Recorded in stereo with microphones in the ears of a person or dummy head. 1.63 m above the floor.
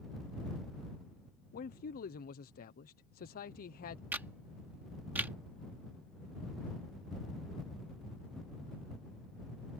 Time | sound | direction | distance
1.5 | a man speaking | 45° left (ahead or behind) | ?
4.1 | a camera shutter | 10° right (ahead or behind) | ?